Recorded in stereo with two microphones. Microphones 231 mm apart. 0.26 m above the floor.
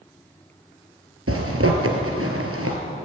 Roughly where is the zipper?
Right.